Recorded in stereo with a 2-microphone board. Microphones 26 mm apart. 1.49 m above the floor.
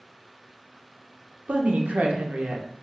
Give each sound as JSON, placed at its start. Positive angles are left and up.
{"t": 1.5, "sound": "a woman speaking", "side_deg": -75, "distance_m": 0.5}